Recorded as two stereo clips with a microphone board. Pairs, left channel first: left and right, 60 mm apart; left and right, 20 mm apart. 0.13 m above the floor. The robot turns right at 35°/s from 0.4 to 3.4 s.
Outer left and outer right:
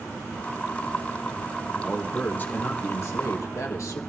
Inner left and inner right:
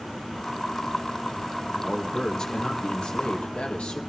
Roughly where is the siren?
I don't hear a siren.